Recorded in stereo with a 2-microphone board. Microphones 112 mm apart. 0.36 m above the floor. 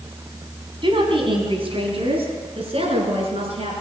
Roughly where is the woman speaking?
Right.